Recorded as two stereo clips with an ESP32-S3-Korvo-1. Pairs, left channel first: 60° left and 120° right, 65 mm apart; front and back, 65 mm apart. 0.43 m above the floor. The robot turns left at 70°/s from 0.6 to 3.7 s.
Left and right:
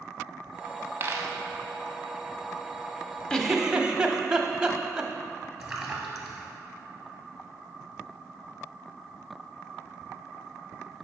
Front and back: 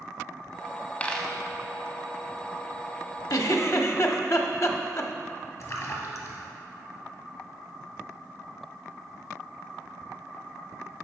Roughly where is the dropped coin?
Right.